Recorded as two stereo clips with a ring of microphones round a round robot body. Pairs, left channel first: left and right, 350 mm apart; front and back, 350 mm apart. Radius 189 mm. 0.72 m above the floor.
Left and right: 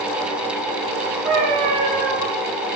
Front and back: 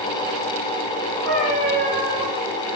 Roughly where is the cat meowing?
Right.